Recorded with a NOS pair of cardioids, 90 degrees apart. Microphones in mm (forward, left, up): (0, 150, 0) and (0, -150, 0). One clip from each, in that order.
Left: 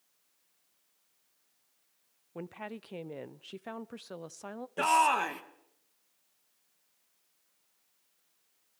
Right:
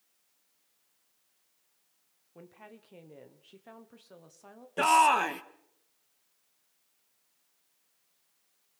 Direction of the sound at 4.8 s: 15° right.